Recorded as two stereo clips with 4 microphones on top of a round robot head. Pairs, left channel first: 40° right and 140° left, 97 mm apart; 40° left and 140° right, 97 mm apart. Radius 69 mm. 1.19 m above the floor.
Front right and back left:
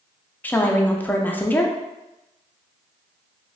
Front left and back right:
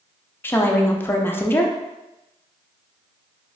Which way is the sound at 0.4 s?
5° left.